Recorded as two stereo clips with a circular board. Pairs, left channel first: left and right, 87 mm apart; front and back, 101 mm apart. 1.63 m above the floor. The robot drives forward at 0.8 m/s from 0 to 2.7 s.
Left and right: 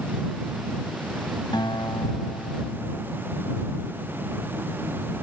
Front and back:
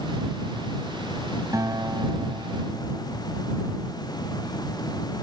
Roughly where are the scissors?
I don't hear scissors.